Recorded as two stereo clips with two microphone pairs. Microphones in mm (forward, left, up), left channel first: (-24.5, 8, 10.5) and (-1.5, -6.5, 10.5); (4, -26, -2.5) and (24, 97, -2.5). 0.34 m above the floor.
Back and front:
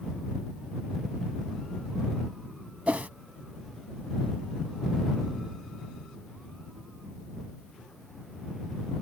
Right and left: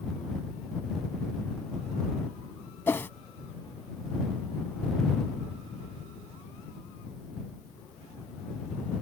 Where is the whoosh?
25° right.